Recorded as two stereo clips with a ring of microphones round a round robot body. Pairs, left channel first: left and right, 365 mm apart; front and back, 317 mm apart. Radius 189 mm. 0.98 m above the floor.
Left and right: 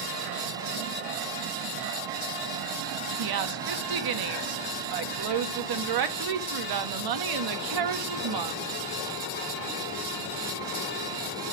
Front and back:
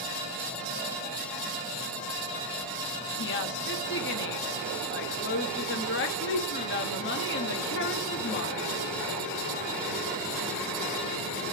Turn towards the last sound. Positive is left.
turn(degrees=-60)